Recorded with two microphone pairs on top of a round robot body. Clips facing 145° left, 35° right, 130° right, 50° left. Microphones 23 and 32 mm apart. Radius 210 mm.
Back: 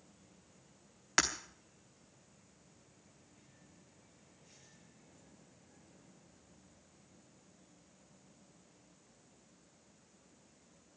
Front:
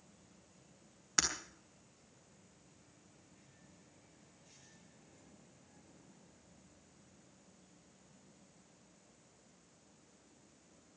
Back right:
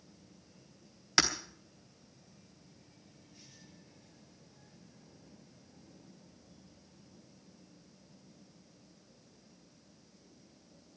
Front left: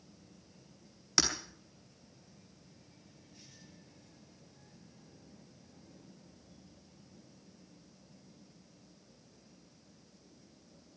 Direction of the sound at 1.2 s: 170° left.